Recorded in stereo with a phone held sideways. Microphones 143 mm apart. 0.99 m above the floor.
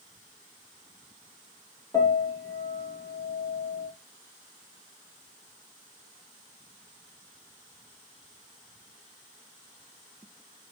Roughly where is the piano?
Left.